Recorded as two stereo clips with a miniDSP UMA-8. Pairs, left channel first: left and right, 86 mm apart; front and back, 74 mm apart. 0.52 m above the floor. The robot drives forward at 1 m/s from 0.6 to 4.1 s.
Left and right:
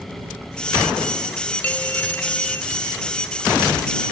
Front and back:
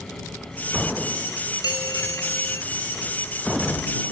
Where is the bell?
20° left; by 2.6 s 35° left.